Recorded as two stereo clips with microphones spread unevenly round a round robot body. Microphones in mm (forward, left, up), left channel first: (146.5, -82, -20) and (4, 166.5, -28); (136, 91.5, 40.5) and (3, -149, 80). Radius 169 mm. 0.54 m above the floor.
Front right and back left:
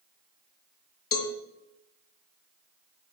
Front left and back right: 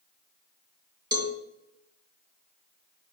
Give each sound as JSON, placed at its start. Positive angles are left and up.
{"t": 1.1, "sound": "a cowbell", "azimuth_deg": -45, "distance_m": 2.0}